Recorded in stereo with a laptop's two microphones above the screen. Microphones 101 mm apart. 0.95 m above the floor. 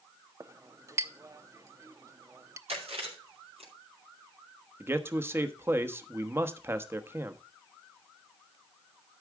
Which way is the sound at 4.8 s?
25° right (ahead or behind).